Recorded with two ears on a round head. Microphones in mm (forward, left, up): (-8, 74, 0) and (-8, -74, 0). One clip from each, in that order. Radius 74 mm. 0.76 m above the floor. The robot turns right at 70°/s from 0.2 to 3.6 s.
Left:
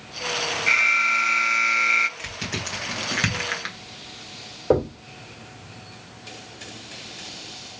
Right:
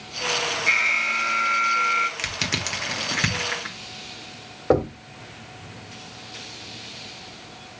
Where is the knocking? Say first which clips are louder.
Even; 35° right (ahead or behind), 1.7 m.